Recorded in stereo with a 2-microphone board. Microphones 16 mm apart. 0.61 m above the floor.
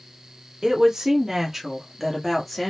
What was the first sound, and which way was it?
A woman speaking, 40° right (ahead or behind).